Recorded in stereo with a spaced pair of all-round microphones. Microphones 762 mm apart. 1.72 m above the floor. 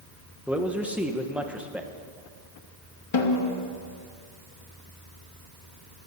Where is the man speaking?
Centre (ahead or behind), 1.1 m.